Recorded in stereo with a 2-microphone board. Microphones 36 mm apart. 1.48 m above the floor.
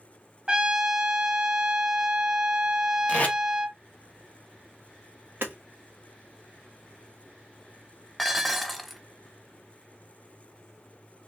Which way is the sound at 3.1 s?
40° left (ahead or behind).